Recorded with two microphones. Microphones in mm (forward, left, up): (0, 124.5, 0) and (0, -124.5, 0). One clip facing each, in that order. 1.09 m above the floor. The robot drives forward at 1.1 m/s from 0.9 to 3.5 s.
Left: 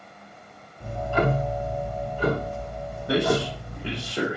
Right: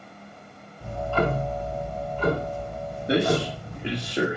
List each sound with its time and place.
0.8 s ticking: 20° left (ahead or behind), 1.4 m; by 4.1 s 5° left (ahead or behind), 4 m
3.1 s a man speaking: 20° right (ahead or behind), 2.0 m